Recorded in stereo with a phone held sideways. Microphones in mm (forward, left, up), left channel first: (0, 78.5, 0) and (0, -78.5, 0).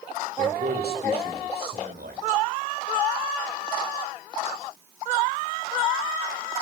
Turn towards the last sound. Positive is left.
turn(degrees=-80)